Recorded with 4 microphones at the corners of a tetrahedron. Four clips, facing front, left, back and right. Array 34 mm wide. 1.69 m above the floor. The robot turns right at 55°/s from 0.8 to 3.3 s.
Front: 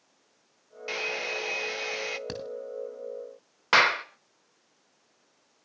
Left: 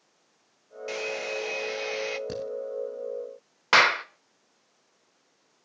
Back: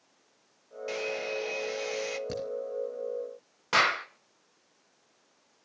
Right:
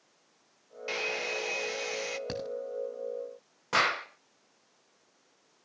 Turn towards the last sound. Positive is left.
turn(degrees=60)